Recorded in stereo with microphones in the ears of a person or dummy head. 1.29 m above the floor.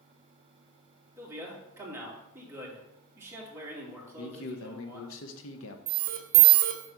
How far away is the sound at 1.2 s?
About 2 m.